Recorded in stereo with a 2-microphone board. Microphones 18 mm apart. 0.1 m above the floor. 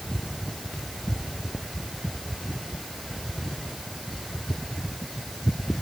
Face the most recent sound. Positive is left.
turn(degrees=5)  # may be behind; listen again after turning